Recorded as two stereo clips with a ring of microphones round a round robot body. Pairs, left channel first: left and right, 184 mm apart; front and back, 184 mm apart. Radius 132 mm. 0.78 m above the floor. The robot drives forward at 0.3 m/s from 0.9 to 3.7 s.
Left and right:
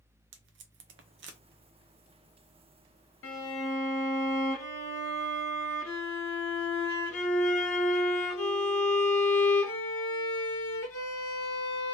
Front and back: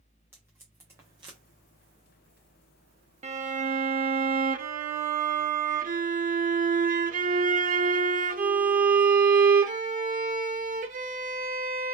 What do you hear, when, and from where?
0.3 s tape being pulled: 100° right, 0.5 m; by 1.4 s 115° right, 0.6 m
3.2 s a violin: 125° left, 0.7 m; by 11.9 s 130° left, 0.8 m